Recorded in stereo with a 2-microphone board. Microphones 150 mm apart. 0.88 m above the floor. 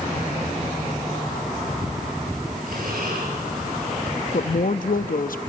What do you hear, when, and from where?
2.7 s breathing: 75° right (ahead or behind), 8 m
4.3 s a woman speaking: 70° left (ahead or behind), 0.8 m